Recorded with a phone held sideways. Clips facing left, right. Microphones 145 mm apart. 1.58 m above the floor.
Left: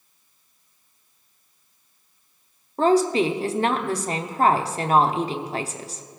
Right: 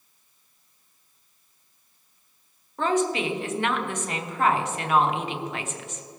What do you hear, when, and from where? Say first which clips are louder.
2.8 s a woman speaking: left 6 dB; 35° left (ahead or behind), 0.9 m